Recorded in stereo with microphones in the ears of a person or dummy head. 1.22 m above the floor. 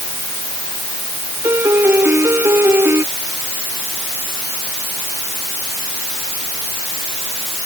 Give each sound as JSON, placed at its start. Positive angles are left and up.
{"t": 1.4, "sound": "a piano", "side_deg": -20}